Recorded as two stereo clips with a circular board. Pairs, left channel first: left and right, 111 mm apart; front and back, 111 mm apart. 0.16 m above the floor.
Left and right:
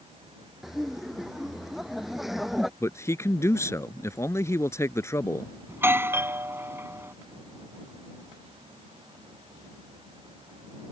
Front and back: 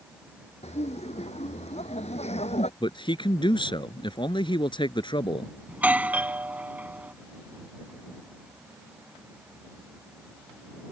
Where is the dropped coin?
No dropped coin in this recording.